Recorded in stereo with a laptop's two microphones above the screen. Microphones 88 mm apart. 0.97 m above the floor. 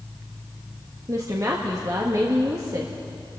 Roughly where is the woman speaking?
Right.